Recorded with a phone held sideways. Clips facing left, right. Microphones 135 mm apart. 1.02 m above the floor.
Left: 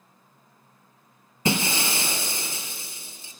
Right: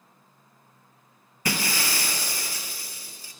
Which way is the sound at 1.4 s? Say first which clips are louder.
Left 4 dB; 25° left (ahead or behind).